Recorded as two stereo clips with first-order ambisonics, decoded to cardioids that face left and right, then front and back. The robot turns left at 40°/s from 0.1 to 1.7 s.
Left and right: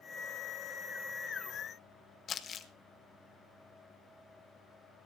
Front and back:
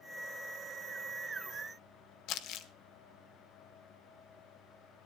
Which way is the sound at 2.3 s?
30° left.